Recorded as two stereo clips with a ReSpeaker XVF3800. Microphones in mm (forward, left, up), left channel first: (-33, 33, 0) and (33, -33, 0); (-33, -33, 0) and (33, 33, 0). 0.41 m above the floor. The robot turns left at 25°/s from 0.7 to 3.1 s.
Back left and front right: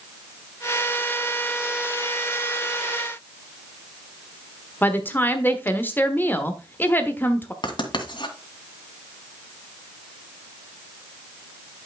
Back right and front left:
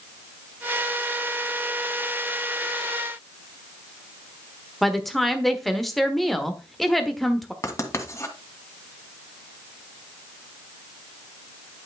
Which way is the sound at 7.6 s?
165° left.